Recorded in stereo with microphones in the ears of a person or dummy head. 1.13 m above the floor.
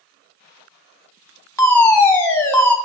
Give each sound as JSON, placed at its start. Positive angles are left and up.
{"t": 1.6, "sound": "a fire alarm", "side_deg": 15, "distance_m": 1.2}